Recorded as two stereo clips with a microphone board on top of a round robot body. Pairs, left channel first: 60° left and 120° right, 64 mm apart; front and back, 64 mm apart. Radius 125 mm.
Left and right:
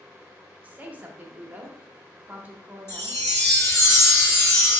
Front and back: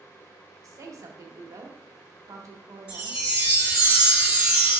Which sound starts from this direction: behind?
A woman speaking, at 0.6 s.